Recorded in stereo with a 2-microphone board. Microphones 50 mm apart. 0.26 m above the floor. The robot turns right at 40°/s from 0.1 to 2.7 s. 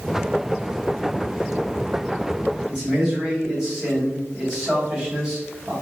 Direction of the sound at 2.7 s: 10° right (ahead or behind).